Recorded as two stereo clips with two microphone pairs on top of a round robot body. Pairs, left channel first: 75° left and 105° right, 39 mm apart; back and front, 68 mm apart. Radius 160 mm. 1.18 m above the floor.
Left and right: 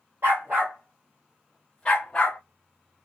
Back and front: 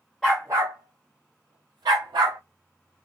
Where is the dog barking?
110° right, 0.6 m; by 2.4 s 10° left, 1.3 m.